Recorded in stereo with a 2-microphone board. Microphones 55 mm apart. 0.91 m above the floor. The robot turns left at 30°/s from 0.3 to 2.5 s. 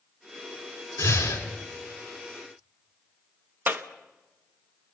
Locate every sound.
1.0 s breathing: 80° left, 3.5 m
3.7 s a clap: 40° right (ahead or behind), 0.9 m